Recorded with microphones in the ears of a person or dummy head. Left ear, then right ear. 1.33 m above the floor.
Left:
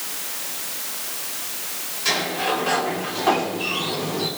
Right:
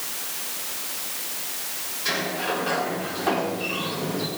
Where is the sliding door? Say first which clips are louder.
Left 4 dB; 15° left (ahead or behind), 4 m.